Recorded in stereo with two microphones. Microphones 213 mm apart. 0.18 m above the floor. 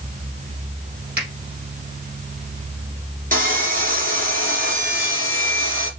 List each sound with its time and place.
1.2 s a finger snap: 50° right (ahead or behind), 4 m
3.3 s sawing: 40° right (ahead or behind), 3 m